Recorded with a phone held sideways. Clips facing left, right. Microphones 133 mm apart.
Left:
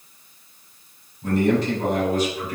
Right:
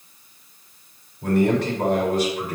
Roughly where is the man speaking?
Right.